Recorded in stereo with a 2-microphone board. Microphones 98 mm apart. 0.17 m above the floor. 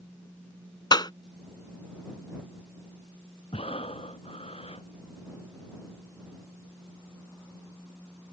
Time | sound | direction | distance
0.9 | a clap | 45° left (ahead or behind) | ?
3.5 | breathing | 75° left (ahead or behind) | ?